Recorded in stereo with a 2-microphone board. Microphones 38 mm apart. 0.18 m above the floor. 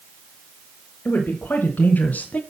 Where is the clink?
No clink in this recording.